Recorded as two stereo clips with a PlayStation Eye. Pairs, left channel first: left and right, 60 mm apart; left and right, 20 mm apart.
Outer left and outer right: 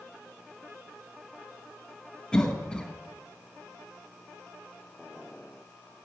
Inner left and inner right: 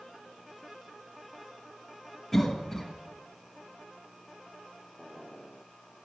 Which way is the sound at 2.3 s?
10° left (ahead or behind).